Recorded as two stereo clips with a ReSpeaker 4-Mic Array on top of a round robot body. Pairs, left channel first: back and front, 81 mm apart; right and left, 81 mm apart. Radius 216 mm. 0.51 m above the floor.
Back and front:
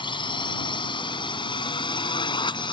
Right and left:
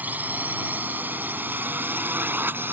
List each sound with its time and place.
0.0 s a drone: 160° left; by 2.7 s 155° left